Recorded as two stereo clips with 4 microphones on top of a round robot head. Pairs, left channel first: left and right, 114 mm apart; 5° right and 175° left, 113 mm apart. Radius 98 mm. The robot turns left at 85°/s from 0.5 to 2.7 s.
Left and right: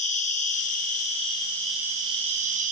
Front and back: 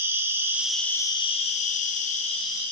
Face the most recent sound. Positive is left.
turn(degrees=-85)